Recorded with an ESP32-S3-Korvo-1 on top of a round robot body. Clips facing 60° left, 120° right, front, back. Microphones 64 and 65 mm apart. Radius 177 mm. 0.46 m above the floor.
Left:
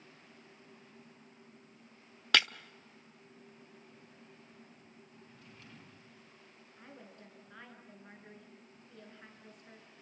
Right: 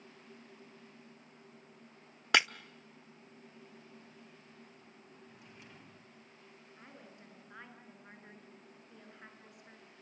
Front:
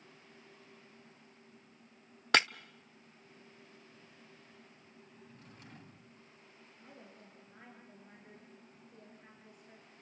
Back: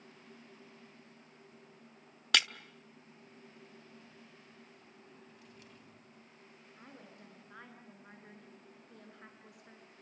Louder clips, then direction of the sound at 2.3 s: Right 1 dB, front 4 dB; 50° right.